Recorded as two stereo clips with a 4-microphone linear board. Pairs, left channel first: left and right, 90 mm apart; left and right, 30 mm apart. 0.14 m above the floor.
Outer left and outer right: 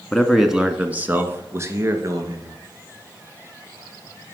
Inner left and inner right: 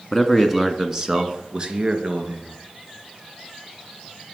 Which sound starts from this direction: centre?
A man speaking, at 0.1 s.